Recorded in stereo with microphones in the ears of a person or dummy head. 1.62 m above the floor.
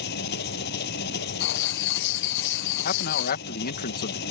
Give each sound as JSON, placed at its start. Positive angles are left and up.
{"t": 0.0, "sound": "an engine running", "side_deg": 65}
{"t": 1.4, "sound": "writing", "side_deg": 65}
{"t": 2.9, "sound": "a man speaking", "side_deg": 50}